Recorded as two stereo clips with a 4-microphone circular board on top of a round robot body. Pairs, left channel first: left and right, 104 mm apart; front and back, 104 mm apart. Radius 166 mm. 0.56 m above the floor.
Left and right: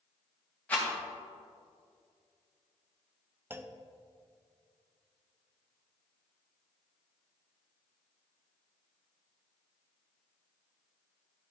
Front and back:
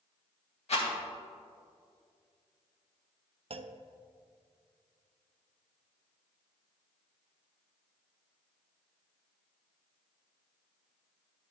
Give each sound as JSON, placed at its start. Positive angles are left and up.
{"t": 0.7, "sound": "a rattle", "azimuth_deg": 15, "distance_m": 3.5}
{"t": 3.5, "sound": "a clunk", "azimuth_deg": -160, "distance_m": 0.6}